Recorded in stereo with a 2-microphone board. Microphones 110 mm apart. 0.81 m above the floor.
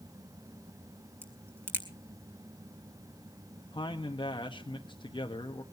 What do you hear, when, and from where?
1.2 s a crack: 20° right (ahead or behind), 2 m
3.7 s a man speaking: 50° left (ahead or behind), 1.0 m